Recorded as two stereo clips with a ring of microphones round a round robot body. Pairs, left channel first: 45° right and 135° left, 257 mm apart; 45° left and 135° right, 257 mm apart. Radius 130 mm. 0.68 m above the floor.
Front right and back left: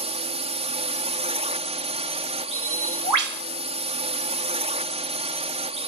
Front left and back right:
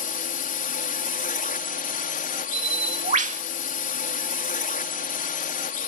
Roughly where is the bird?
Behind.